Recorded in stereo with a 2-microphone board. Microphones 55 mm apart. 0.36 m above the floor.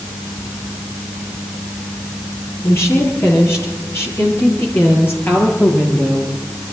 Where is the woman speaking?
55° left (ahead or behind), 8.5 m; by 6.3 s 40° left (ahead or behind), 7 m.